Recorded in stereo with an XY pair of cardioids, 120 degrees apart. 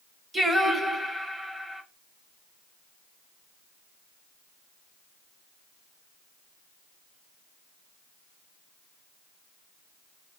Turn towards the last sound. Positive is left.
turn(degrees=-10)